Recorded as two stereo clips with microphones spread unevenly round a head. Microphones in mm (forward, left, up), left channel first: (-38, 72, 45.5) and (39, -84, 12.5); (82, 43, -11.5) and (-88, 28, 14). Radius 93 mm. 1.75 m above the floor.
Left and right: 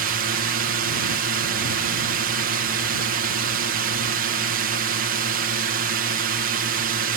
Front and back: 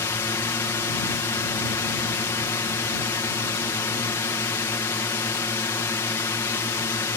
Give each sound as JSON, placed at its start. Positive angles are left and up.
{"t": 0.0, "sound": "a drone", "azimuth_deg": -70}